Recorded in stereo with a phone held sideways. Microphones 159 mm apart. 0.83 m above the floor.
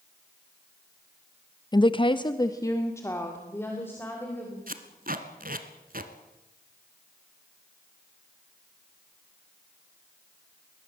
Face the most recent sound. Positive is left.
turn(degrees=-65)  # may be behind; listen again after turning